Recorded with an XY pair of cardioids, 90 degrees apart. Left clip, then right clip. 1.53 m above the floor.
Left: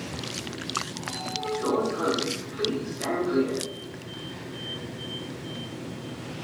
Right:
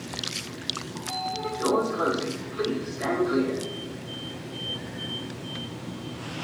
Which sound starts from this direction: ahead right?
A sliding door, at 0.9 s.